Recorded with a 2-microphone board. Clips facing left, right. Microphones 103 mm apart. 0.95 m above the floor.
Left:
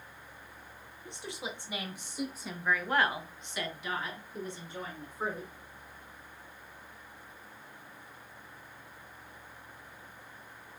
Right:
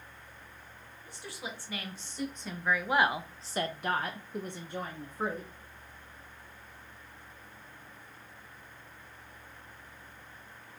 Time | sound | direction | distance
1.1 | a woman speaking | 25° left (ahead or behind) | 1.5 m